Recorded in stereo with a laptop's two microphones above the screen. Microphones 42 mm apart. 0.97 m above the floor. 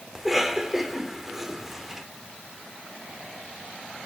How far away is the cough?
About 2.5 m.